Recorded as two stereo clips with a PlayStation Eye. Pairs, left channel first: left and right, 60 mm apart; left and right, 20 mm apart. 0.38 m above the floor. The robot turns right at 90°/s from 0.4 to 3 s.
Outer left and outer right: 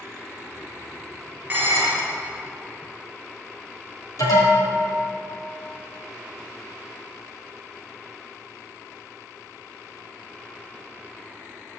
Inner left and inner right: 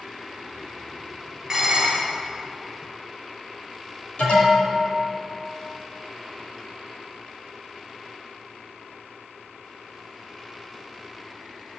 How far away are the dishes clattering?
About 3.5 m.